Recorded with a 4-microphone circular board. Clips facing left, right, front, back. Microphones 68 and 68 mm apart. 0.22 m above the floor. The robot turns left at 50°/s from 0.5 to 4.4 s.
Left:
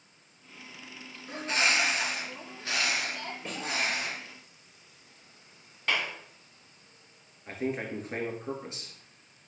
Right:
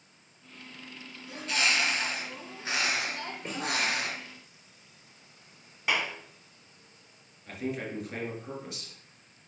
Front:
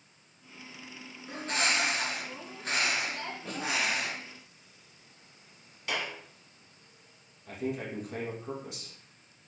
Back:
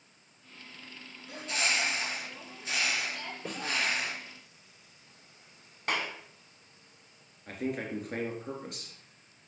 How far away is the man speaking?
About 3 m.